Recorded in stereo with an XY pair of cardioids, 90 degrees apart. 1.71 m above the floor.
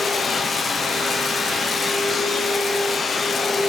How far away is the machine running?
About 1.0 m.